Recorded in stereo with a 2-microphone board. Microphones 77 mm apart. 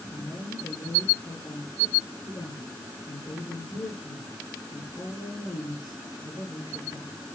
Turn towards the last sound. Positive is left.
turn(degrees=80)